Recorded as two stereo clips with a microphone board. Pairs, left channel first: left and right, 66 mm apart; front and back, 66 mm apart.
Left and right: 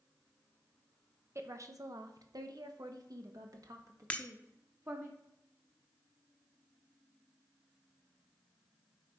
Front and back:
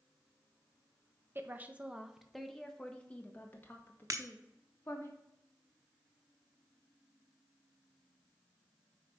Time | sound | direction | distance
1.4 | a woman speaking | 130° right | 1.1 m
4.1 | breaking glass | 155° left | 0.8 m